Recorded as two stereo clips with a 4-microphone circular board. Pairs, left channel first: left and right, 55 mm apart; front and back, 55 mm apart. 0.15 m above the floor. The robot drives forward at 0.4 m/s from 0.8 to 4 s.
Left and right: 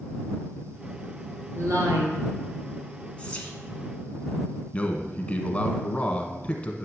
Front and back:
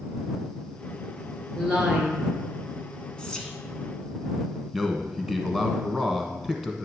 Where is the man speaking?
110° left, 1.1 m.